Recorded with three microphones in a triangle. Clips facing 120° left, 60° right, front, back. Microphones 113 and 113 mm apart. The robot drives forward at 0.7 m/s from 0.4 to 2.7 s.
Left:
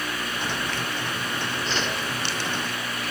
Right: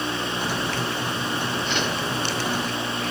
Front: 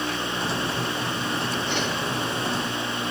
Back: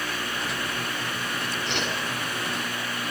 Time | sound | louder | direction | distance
1.7 | a whoosh | right 1 dB, front 3 dB | 175° left | 7.5 m